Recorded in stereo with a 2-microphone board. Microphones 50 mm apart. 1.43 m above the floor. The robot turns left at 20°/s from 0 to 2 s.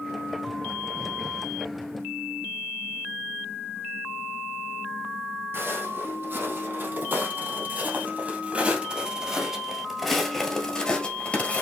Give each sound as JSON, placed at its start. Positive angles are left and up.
{"t": 5.5, "sound": "footsteps", "side_deg": -50, "distance_m": 3.0}